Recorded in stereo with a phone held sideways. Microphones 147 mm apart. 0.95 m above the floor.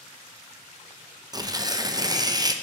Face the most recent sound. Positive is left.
turn(degrees=-25)  # may be behind; listen again after turning